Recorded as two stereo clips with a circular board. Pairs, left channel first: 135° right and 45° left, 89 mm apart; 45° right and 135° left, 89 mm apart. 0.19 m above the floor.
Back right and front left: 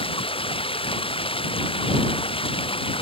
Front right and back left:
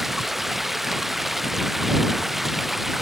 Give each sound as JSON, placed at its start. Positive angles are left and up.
{"t": 0.0, "sound": "running water", "azimuth_deg": -135}